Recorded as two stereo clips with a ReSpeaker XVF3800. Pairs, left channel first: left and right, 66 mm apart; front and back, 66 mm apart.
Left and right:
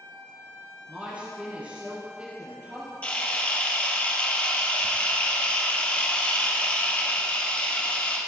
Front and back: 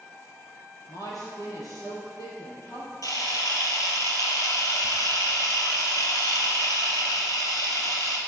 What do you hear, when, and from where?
0.9 s a woman speaking: 20° right, 4 m
3.0 s a camera shutter: 20° left, 2.5 m